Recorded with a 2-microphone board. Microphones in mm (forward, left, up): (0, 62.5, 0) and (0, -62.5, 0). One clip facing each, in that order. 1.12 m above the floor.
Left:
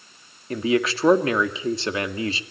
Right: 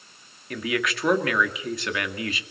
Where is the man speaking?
30° left (ahead or behind), 2.0 m.